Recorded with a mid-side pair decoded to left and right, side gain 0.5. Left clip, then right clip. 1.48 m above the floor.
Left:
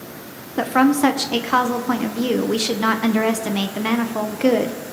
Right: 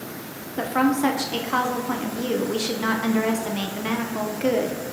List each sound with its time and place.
0.6 s a woman speaking: 40° left, 0.8 m